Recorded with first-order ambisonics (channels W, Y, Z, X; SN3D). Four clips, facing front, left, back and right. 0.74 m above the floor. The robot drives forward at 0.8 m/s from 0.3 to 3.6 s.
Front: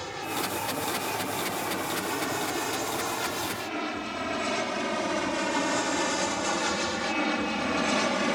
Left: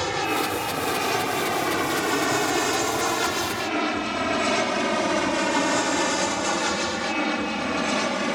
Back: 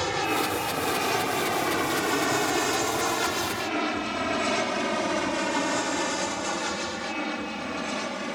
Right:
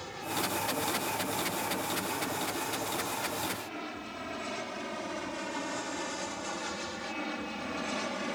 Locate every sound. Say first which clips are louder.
0.0 s an aircraft: left 11 dB, back 6 dB; 120° left; by 8.3 s 55° left